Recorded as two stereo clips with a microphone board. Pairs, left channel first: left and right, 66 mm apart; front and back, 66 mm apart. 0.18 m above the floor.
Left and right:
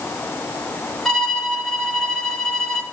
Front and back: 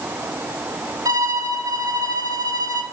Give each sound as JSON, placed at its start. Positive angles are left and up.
{"t": 1.1, "sound": "a violin", "azimuth_deg": 170, "distance_m": 0.9}